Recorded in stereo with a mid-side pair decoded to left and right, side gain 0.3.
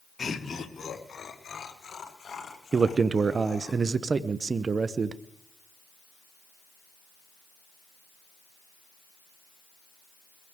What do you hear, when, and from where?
0.2 s laughter: 50° left, 2.5 m; by 3.7 s 55° left, 8 m
2.7 s a man speaking: 60° right, 0.8 m